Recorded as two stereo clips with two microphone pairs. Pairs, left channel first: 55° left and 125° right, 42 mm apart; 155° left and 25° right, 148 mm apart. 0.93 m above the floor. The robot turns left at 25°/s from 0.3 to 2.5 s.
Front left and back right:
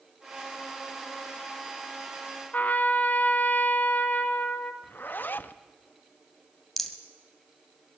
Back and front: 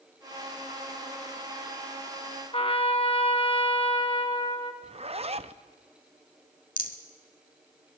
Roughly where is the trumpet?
Left.